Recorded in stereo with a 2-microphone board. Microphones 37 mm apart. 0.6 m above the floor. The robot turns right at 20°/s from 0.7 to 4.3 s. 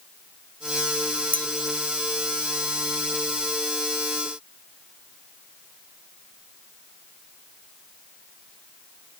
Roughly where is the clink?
Left.